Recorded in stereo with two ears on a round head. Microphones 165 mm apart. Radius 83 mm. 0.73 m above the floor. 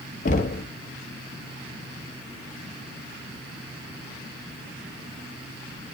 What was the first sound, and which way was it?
Knocking, 45° left (ahead or behind).